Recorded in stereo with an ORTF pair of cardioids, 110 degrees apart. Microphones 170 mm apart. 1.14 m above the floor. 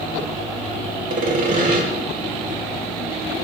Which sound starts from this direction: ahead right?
Sawing, at 1.1 s.